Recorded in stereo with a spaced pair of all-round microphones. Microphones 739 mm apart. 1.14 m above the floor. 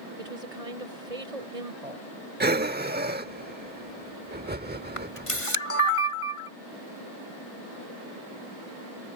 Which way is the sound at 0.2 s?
55° right (ahead or behind).